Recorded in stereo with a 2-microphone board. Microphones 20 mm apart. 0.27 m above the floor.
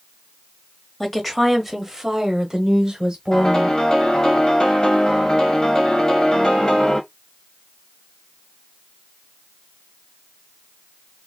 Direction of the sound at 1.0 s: 10° left (ahead or behind).